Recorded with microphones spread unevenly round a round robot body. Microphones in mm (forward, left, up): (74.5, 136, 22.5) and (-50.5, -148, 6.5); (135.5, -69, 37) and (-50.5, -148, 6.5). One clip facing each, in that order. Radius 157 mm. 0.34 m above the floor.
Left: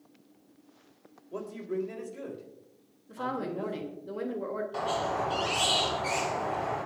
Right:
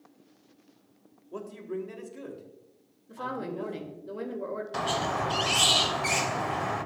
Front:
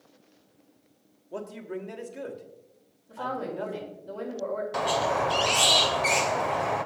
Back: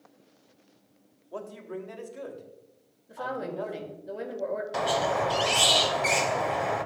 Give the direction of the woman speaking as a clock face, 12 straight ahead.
7 o'clock.